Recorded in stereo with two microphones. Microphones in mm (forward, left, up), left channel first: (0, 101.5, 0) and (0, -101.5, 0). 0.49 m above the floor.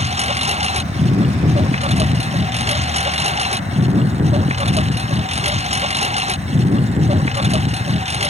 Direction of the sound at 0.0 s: 30° right (ahead or behind).